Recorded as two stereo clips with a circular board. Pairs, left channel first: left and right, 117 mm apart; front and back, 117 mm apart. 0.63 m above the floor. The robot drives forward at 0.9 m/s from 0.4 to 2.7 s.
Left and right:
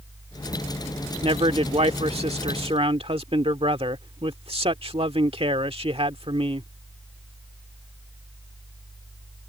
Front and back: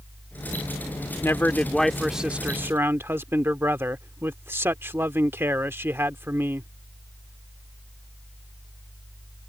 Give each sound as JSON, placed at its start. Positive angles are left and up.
{"t": 1.2, "sound": "a man speaking", "azimuth_deg": -65}